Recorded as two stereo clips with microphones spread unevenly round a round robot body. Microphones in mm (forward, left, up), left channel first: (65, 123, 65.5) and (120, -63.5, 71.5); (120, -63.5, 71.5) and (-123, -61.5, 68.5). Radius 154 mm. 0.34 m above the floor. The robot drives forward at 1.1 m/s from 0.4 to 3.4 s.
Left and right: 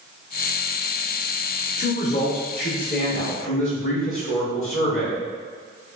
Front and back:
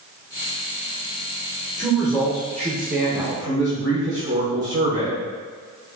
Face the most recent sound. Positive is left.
turn(degrees=150)